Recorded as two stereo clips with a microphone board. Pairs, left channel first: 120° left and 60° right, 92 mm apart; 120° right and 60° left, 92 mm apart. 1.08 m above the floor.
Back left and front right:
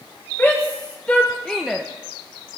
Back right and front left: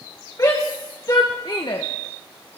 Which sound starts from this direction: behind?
A shout, at 0.4 s.